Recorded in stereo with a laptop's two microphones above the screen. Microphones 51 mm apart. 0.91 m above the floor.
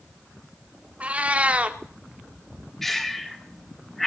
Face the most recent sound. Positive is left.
turn(degrees=5)  # may be behind; listen again after turning